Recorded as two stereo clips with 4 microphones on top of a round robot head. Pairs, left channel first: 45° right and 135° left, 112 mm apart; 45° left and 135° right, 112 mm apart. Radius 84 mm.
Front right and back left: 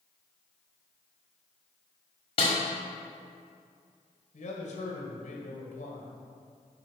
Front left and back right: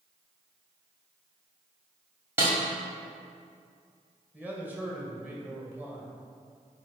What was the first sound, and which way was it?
A snare drum, 75° right.